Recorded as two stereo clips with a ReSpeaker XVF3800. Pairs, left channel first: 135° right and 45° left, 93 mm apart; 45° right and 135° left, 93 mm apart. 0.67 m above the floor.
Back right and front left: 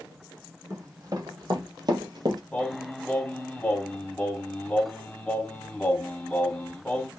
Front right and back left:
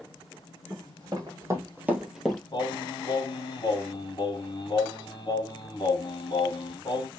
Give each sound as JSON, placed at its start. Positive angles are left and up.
{"t": 0.7, "sound": "running footsteps", "azimuth_deg": 95, "distance_m": 1.7}
{"t": 2.5, "sound": "singing", "azimuth_deg": -60, "distance_m": 1.3}